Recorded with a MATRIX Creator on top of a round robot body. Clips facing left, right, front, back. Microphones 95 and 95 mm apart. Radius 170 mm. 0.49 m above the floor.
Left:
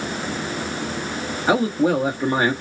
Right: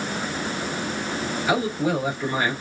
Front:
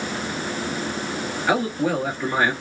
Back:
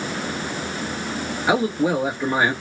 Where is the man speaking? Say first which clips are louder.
Left 5 dB, back 2 dB; 110° left, 1.6 m.